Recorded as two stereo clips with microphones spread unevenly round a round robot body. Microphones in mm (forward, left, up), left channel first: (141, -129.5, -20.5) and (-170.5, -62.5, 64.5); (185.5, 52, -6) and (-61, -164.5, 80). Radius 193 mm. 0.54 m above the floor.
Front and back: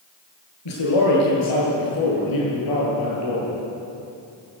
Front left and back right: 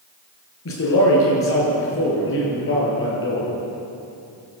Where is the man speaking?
5° right, 8.5 m; by 3.5 s 10° right, 11 m.